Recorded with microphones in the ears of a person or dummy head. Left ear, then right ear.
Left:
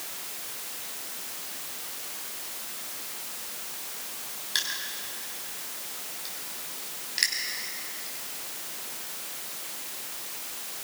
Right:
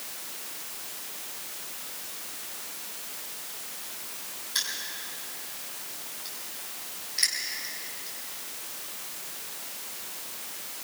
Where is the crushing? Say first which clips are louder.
Left 1 dB; 30° left (ahead or behind), 5 m.